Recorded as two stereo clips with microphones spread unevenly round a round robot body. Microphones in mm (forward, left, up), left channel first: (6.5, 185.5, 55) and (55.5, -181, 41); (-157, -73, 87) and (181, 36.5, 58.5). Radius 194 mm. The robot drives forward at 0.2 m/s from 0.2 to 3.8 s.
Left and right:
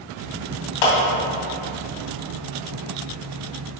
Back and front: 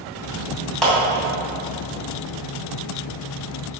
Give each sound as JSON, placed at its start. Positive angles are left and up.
{"t": 0.8, "sound": "a clap", "azimuth_deg": 110, "distance_m": 2.5}